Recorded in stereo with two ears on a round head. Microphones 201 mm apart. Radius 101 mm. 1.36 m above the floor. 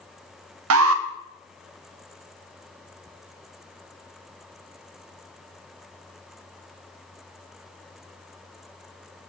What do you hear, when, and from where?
0.7 s an alarm: 70° right (ahead or behind), 0.5 m